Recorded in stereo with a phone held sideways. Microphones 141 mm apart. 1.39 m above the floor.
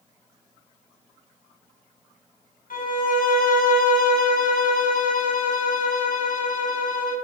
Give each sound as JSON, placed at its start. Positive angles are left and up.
{"t": 2.7, "sound": "a violin", "side_deg": 75, "distance_m": 1.1}